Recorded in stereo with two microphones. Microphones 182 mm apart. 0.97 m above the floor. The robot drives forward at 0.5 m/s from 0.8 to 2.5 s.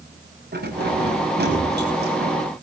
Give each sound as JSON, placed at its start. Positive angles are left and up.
{"t": 0.5, "sound": "keys jangling", "side_deg": -60, "distance_m": 5.5}